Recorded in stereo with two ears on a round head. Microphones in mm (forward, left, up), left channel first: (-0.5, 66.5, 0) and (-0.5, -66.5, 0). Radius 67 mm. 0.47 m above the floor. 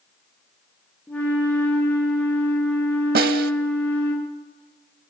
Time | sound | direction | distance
1.1 | a flute | 10° left (ahead or behind) | 6 m
3.1 | a snare drum | 70° right (ahead or behind) | 0.7 m